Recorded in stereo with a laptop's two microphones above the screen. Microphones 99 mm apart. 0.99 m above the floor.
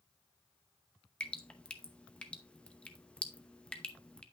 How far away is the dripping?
About 0.8 m.